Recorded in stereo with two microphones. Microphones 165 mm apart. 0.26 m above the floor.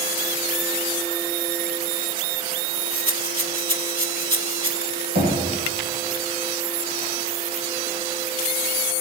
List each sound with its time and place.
2.9 s a rattle: 30° right (ahead or behind), 3.5 m
5.2 s knocking: 75° right (ahead or behind), 8 m